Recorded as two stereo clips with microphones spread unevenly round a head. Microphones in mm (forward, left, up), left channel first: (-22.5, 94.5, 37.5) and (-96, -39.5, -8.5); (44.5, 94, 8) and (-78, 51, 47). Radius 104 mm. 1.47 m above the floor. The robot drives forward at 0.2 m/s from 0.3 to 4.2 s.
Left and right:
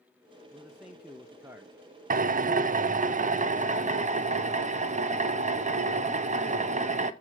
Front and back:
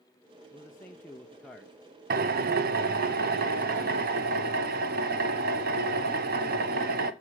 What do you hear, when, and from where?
0.5 s a man speaking: 40° right, 0.6 m; by 1.8 s 60° right, 0.5 m
2.1 s a drill: 135° right, 0.6 m; by 7.1 s 155° right, 1.0 m